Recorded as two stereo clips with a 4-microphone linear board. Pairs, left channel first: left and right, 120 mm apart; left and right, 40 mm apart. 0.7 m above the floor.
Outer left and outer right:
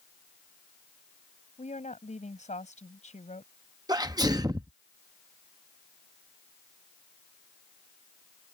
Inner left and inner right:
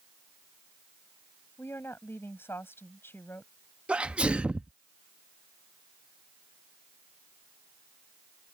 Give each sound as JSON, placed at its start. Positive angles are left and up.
{"t": 1.6, "sound": "a woman speaking", "side_deg": 80}
{"t": 3.9, "sound": "a sneeze", "side_deg": -30}